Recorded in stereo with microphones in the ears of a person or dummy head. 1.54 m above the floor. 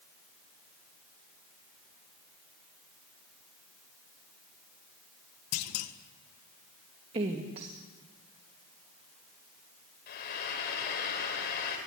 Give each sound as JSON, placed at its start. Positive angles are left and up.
{"t": 5.5, "sound": "a clunk", "side_deg": 90, "distance_m": 1.6}
{"t": 7.1, "sound": "a woman speaking", "side_deg": -35, "distance_m": 2.5}
{"t": 10.1, "sound": "frying", "side_deg": 50, "distance_m": 5.0}